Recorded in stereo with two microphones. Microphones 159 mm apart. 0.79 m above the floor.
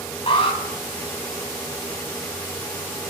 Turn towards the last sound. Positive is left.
turn(degrees=40)  # may be behind; listen again after turning